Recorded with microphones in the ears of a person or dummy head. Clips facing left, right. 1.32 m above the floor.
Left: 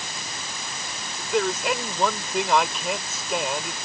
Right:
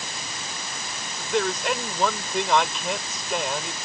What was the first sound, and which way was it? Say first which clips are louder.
A man speaking: left 1 dB; centre (ahead or behind).